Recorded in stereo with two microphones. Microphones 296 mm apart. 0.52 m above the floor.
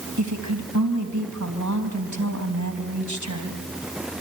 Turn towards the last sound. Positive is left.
turn(degrees=-70)  # may be behind; listen again after turning